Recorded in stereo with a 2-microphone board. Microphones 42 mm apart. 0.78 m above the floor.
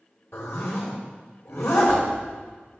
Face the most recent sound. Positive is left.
turn(degrees=75)  # may be behind; listen again after turning